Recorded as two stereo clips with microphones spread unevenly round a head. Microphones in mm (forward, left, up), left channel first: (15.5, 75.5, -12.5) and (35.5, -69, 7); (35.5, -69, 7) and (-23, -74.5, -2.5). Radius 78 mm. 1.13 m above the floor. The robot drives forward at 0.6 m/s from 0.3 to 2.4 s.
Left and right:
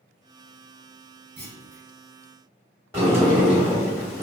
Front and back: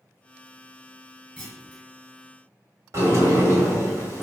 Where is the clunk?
65° right, 1.5 m; by 1.8 s 80° right, 1.5 m.